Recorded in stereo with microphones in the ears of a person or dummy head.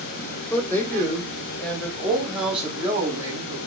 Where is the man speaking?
15° left (ahead or behind), 5.5 m; by 3.6 s 20° right (ahead or behind), 4 m.